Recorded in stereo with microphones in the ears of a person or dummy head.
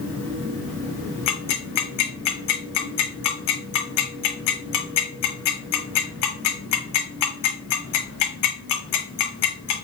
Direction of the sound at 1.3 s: 60° left (ahead or behind).